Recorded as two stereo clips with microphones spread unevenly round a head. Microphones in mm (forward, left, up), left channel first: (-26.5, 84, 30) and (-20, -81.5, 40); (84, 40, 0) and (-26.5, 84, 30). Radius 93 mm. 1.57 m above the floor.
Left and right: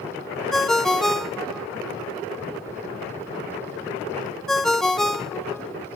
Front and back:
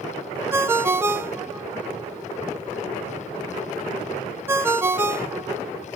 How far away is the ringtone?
About 0.5 m.